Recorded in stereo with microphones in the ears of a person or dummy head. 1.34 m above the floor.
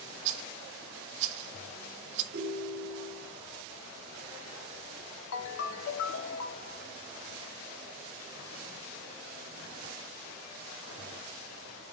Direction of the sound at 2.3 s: 60° right (ahead or behind).